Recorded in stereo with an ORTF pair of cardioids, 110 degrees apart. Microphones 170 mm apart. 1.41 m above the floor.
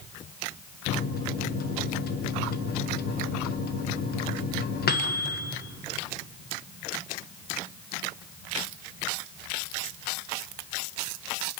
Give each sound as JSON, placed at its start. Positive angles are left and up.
{"t": 0.9, "sound": "a microwave", "azimuth_deg": 65, "distance_m": 1.2}